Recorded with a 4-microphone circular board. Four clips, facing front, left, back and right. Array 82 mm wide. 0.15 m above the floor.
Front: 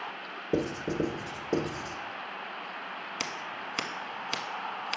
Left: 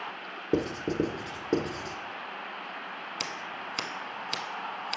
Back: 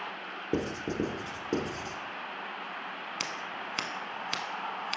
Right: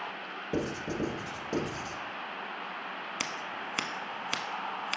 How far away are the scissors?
About 1.0 m.